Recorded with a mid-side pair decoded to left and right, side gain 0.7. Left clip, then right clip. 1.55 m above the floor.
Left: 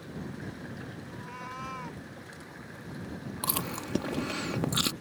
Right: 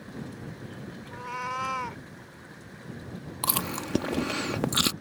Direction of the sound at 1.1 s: 40° right.